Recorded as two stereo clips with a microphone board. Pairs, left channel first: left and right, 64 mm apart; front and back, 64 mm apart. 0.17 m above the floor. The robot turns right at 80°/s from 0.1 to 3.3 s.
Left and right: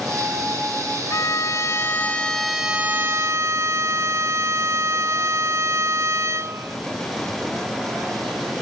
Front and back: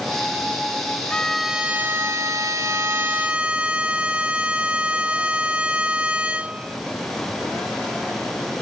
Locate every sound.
1.1 s a violin: 70° left; by 6.8 s 115° right